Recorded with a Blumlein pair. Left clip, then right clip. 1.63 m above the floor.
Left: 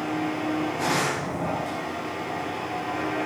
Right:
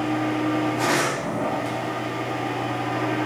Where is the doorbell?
I don't hear a doorbell.